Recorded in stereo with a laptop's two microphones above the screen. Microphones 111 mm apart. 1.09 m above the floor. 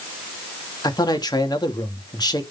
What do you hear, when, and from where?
0.8 s a man speaking: 40° left (ahead or behind), 2.5 m